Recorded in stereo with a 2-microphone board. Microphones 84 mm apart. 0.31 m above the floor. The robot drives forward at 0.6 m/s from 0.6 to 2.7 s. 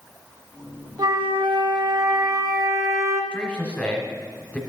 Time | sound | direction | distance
1.0 | a flute | 60° right (ahead or behind) | 0.8 m
3.3 | a man speaking | 15° left (ahead or behind) | 1.1 m